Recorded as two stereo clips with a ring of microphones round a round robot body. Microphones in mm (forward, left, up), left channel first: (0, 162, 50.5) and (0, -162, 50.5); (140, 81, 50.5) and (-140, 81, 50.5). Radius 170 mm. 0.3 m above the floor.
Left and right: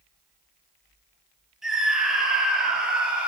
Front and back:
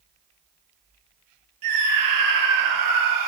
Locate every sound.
1.6 s a scream: straight behind, 6 m; by 3.3 s 175° right, 5 m